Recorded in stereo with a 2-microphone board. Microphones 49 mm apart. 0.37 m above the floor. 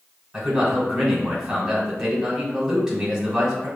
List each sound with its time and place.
0.3 s a man speaking: 10° right (ahead or behind), 1.2 m